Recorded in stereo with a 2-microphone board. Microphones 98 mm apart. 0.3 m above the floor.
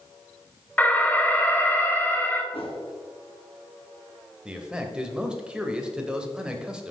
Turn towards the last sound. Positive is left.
turn(degrees=-10)  # may be behind; listen again after turning